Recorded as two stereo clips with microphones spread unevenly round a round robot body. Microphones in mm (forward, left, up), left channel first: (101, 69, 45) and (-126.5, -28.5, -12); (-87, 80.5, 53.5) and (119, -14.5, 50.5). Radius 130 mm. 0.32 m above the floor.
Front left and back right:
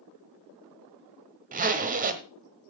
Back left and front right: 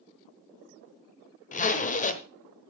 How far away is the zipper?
About 1.1 m.